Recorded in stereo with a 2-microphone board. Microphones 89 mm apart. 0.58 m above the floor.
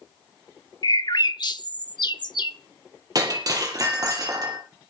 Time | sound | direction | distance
0.8 | a bird | 55° left (ahead or behind) | 0.8 m
3.1 | breaking glass | 45° right (ahead or behind) | 5 m